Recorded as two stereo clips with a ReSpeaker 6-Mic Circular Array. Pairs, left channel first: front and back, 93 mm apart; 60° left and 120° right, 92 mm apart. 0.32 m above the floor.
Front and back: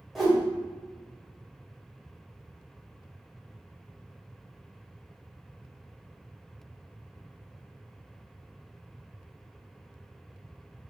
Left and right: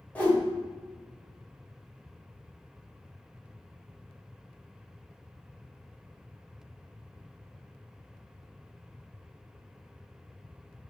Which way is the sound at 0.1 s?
95° left.